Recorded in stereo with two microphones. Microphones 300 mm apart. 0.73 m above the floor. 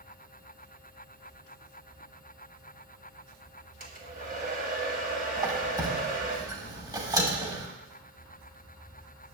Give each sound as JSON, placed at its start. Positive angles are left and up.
{"t": 3.8, "sound": "a hair dryer", "side_deg": -25, "distance_m": 1.3}
{"t": 5.4, "sound": "a squeak", "side_deg": -10, "distance_m": 1.1}